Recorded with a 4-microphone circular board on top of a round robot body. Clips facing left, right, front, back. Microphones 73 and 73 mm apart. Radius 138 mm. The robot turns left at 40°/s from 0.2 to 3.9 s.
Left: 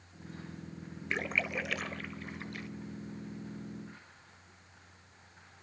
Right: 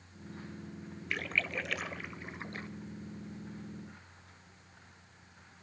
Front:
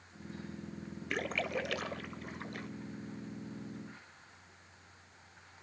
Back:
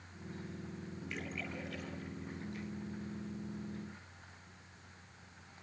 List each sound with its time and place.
1.1 s a splash: 25° left, 1.2 m; by 2.7 s 35° right, 1.2 m